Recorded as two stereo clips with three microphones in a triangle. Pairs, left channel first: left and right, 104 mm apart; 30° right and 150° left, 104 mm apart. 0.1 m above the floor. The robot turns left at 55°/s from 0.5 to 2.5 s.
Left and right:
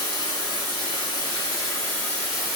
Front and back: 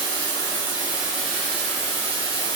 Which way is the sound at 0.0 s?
105° left.